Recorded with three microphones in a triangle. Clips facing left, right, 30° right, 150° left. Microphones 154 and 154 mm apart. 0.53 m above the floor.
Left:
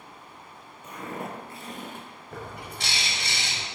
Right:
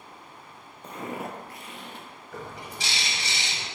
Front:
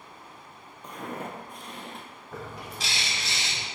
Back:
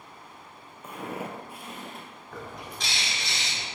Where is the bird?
55° left, 1.1 m.